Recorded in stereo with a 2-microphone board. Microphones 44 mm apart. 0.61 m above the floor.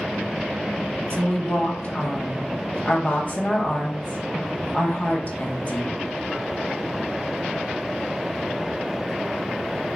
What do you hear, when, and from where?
1.1 s a woman speaking: 35° left (ahead or behind), 0.7 m